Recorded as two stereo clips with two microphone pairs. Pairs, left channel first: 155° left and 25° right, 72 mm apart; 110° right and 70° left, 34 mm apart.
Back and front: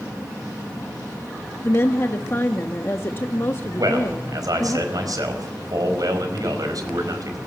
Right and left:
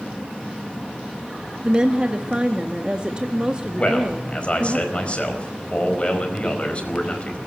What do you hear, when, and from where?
1.6 s a woman speaking: 120° left, 0.9 m
3.8 s a man speaking: 55° right, 4.5 m